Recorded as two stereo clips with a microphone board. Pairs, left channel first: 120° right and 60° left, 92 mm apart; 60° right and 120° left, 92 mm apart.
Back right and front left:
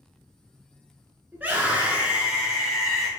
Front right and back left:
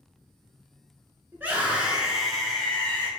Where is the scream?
100° left, 1.5 m; by 3.1 s 35° right, 1.4 m.